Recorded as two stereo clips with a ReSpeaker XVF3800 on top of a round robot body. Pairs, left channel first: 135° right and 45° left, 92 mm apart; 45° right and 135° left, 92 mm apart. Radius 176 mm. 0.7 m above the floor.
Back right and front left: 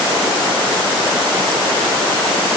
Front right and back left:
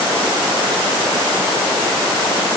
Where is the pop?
No pop in this recording.